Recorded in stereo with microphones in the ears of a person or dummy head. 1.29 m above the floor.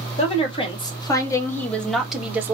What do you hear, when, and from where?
0.2 s a woman speaking: 40° left (ahead or behind), 1.7 m; by 2.5 s 10° right (ahead or behind), 1.1 m